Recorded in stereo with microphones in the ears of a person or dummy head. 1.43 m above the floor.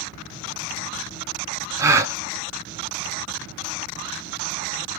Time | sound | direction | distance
1.8 | a gasp | 20° right (ahead or behind) | 0.6 m